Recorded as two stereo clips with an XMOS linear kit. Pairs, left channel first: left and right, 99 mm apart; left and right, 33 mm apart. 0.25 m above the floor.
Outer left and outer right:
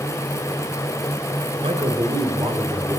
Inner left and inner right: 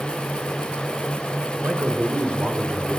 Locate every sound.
1.6 s a man speaking: 65° right (ahead or behind), 3.5 m; by 3.0 s 60° right (ahead or behind), 3 m